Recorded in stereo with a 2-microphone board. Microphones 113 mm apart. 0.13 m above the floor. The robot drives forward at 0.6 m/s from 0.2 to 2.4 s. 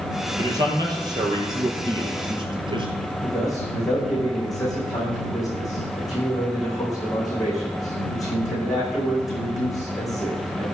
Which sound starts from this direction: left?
A man speaking, at 3.2 s.